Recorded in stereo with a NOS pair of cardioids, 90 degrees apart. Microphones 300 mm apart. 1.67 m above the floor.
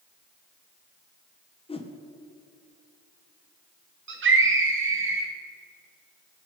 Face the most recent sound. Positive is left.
turn(degrees=-40)